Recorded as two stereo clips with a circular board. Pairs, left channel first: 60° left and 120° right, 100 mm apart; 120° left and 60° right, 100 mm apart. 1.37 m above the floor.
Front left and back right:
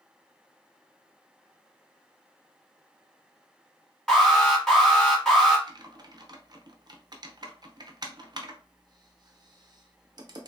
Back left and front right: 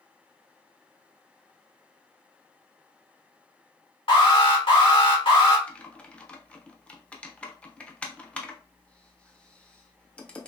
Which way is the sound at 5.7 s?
165° right.